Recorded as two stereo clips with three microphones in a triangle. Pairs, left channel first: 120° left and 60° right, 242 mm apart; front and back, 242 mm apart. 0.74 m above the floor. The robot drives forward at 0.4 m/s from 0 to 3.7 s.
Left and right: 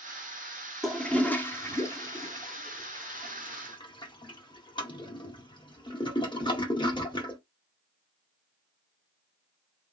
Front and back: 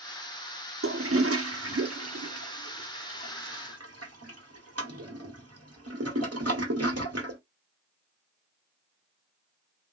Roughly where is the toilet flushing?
Behind right.